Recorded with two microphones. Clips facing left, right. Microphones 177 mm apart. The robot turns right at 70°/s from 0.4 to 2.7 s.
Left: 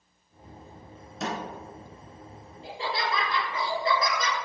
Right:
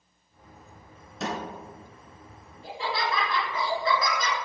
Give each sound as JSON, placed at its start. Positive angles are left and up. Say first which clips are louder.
{"t": 1.2, "sound": "a snare drum", "louder": "even", "side_deg": 5, "distance_m": 1.3}
{"t": 2.6, "sound": "laughter", "louder": "right 1 dB", "side_deg": 30, "distance_m": 1.9}